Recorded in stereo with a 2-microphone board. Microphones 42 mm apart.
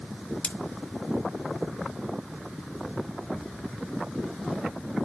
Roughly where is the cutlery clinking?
Left.